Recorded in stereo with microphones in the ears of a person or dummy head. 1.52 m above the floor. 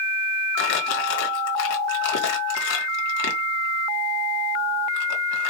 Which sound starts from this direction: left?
Crumpling, at 0.6 s.